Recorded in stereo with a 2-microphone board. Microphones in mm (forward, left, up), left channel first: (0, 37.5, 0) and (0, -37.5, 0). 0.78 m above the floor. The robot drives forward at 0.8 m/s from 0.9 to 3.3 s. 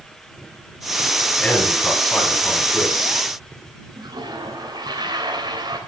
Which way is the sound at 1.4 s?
10° left (ahead or behind).